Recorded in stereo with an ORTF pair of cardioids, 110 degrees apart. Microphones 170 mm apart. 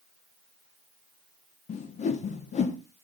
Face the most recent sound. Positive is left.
turn(degrees=45)